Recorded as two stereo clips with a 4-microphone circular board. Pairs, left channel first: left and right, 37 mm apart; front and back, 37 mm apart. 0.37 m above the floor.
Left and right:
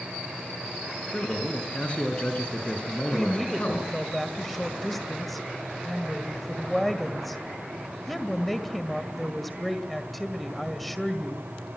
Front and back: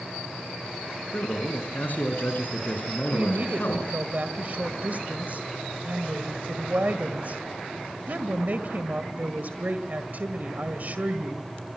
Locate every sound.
1.1 s a man speaking: 35° left, 5.5 m
3.1 s a woman speaking: 175° left, 1.8 m